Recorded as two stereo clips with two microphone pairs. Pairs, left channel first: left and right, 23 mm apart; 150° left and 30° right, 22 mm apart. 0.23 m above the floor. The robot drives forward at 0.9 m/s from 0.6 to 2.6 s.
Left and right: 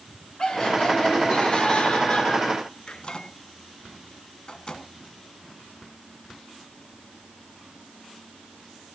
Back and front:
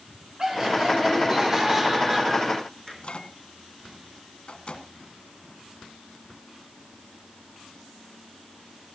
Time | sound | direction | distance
0.4 | laughter | 35° left | 4 m
2.9 | a microwave | 130° left | 2.0 m